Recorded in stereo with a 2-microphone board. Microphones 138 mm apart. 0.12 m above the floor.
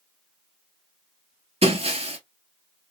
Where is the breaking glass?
45° right (ahead or behind), 1.0 m.